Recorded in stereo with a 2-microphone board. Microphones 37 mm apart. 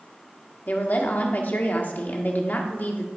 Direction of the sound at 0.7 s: 50° left (ahead or behind).